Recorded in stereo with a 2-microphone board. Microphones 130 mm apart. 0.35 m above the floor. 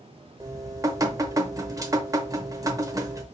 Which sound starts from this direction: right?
Dripping, at 0.4 s.